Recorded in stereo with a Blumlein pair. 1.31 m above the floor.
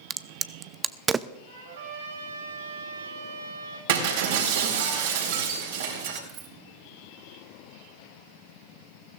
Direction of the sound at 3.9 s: 55° right.